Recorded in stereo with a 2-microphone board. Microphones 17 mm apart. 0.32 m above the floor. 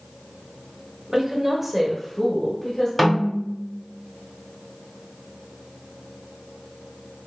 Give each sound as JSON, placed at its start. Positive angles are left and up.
{"t": 1.1, "sound": "a woman speaking", "side_deg": -30, "distance_m": 1.2}
{"t": 3.0, "sound": "a snare drum", "side_deg": 10, "distance_m": 1.7}